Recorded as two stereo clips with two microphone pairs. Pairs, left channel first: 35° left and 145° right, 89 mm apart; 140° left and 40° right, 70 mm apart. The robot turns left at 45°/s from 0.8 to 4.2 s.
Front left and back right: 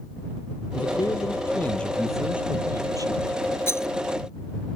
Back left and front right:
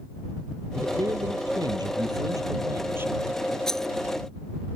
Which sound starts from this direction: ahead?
A man speaking, at 0.8 s.